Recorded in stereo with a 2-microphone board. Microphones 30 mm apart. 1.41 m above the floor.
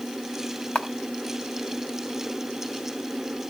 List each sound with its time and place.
0.8 s a camera shutter: 40° left (ahead or behind), 1.3 m